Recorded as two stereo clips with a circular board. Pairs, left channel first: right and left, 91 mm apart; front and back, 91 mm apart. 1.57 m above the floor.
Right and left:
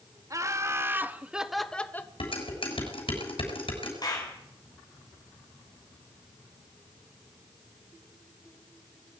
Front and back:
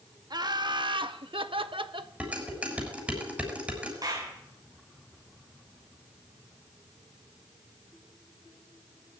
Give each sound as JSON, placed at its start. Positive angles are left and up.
{"t": 0.3, "sound": "laughter", "azimuth_deg": 145, "distance_m": 2.5}
{"t": 2.2, "sound": "dishes clattering", "azimuth_deg": -105, "distance_m": 7.0}
{"t": 4.0, "sound": "a clap", "azimuth_deg": -135, "distance_m": 9.5}